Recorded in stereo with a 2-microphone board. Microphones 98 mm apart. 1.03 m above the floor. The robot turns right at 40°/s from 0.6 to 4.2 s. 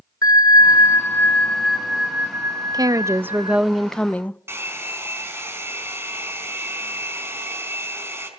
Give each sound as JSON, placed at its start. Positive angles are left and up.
{"t": 0.2, "sound": "a bell", "azimuth_deg": 135, "distance_m": 2.0}
{"t": 2.7, "sound": "a woman speaking", "azimuth_deg": -45, "distance_m": 0.7}
{"t": 4.5, "sound": "a hair dryer", "side_deg": -25, "distance_m": 4.5}